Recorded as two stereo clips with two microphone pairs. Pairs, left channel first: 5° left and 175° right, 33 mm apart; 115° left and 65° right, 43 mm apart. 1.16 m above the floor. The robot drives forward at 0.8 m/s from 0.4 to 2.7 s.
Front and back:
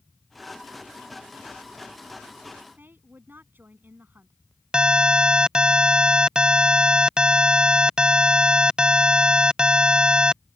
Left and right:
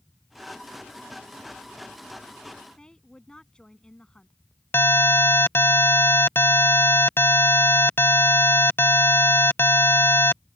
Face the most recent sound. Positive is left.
turn(degrees=125)